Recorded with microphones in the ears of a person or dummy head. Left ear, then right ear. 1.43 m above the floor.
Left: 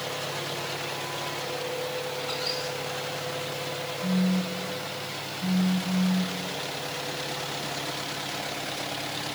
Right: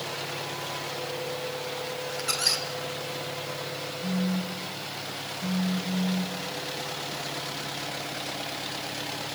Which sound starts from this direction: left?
A phone buzzing, at 4.0 s.